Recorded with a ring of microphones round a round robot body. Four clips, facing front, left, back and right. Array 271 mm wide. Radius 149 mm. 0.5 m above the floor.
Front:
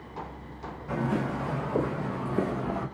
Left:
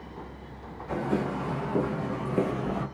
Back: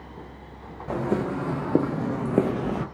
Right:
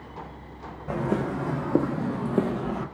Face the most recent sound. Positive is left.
turn(degrees=170)